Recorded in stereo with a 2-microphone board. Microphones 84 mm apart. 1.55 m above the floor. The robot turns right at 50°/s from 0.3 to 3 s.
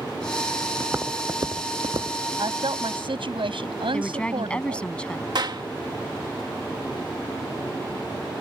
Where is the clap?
60° right (ahead or behind).